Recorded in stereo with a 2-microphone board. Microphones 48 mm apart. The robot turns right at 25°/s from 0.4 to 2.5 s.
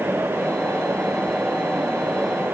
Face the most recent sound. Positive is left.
No sound to turn to.